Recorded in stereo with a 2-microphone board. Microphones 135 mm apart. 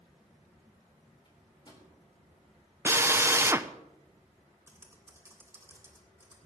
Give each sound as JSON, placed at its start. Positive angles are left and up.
{"t": 1.2, "sound": "a microwave", "side_deg": 35, "distance_m": 4.5}
{"t": 2.9, "sound": "a drill", "side_deg": -20, "distance_m": 0.6}
{"t": 4.7, "sound": "typing on a keyboard", "side_deg": -20, "distance_m": 3.5}